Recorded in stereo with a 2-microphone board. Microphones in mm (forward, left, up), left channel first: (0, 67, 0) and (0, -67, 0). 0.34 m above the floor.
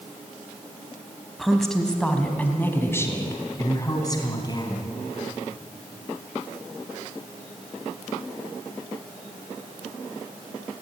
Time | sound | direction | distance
1.4 | a woman speaking | centre (ahead or behind) | 2.5 m